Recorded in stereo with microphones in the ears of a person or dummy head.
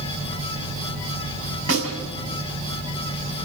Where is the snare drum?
75° right (ahead or behind), 7 m.